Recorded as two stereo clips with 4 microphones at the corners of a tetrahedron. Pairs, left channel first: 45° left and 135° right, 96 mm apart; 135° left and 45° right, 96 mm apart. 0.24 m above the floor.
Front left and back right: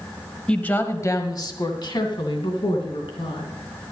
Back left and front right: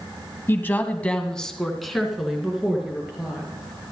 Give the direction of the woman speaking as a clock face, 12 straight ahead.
8 o'clock.